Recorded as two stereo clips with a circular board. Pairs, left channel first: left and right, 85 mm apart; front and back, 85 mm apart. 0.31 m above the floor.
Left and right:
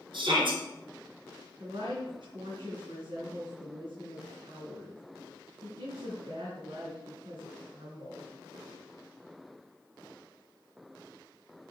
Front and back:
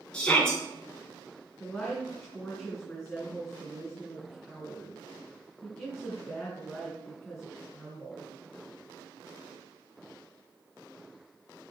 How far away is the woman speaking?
About 3.5 m.